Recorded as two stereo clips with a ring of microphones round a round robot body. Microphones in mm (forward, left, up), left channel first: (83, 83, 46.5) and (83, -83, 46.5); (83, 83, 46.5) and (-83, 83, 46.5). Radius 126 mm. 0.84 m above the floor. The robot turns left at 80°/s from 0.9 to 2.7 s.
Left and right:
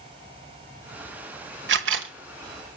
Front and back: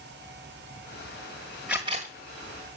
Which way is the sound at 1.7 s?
95° right.